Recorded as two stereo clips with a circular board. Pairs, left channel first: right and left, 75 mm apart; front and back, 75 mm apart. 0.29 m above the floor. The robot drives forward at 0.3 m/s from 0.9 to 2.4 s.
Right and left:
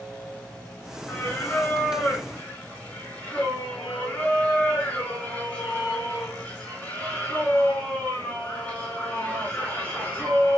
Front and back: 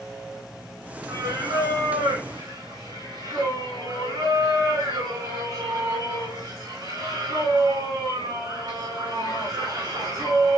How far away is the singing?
About 3 m.